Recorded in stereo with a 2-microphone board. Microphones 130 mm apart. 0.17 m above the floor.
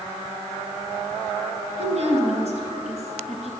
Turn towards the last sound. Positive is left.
turn(degrees=-55)  # may be behind; listen again after turning